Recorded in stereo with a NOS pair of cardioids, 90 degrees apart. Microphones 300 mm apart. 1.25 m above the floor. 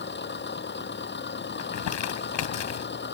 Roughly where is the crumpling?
Left.